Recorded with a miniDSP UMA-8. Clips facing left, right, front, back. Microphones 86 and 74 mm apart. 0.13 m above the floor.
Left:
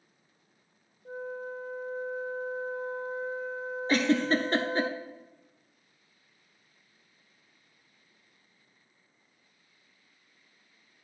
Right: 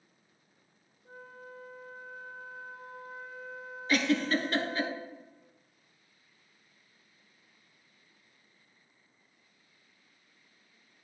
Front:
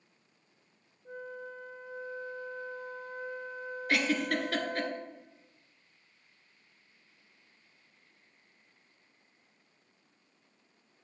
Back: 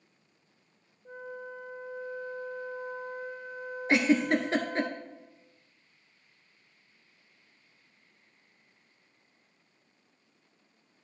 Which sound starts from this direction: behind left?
A giggle, at 3.9 s.